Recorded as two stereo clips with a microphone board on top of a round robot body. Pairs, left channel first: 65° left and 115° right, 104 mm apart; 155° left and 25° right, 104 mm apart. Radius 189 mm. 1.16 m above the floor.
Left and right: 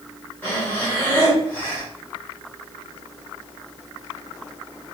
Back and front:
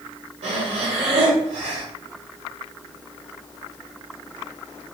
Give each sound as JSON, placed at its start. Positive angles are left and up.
{"t": 0.4, "sound": "breathing", "azimuth_deg": 0, "distance_m": 0.5}